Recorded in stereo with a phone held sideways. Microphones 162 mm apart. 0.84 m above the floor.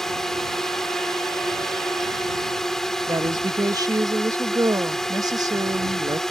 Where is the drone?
5° left (ahead or behind).